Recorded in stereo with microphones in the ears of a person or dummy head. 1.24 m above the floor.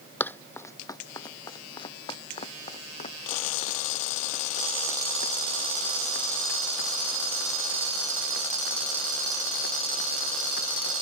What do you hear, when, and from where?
0.2 s running footsteps: 15° left (ahead or behind); by 10.9 s 70° left (ahead or behind)